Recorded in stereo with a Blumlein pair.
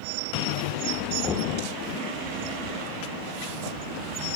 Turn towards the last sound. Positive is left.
turn(degrees=15)